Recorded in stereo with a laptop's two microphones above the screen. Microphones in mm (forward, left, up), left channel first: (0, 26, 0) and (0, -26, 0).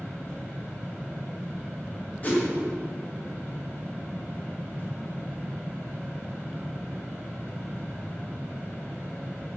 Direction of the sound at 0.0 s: 40° left (ahead or behind).